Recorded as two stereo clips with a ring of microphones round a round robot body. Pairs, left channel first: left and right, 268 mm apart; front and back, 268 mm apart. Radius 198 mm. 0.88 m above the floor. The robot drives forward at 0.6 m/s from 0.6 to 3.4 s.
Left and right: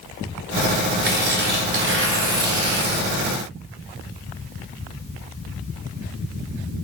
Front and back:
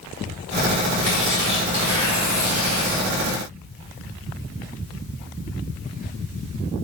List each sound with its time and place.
1.0 s tearing paper: 35° right, 2.5 m; by 3.1 s 65° right, 1.7 m